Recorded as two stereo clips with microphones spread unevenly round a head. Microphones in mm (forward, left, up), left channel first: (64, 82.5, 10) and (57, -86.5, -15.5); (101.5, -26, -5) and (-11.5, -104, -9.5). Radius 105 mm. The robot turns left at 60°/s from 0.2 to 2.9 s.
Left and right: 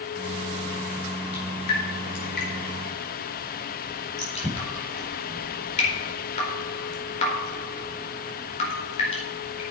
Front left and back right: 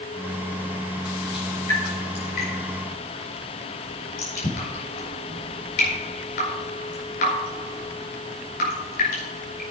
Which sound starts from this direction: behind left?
Dripping, at 1.3 s.